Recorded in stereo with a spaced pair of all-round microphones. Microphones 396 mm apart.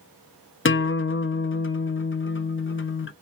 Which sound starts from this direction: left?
A guitar, at 0.7 s.